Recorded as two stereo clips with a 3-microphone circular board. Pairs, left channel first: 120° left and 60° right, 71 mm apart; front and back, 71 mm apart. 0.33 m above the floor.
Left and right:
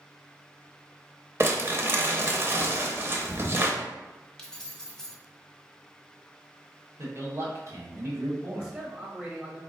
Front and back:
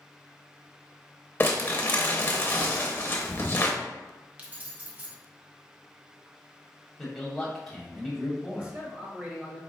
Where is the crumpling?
35° right, 0.7 m.